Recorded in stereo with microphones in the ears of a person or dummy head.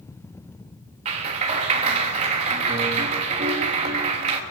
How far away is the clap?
About 3 m.